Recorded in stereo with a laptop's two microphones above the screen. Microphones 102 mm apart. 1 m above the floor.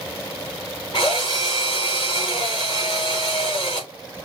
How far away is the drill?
About 3.5 m.